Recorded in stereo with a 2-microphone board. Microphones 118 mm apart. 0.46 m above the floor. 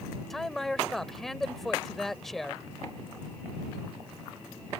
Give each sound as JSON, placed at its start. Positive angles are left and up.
{"t": 0.3, "sound": "a man speaking", "side_deg": 0}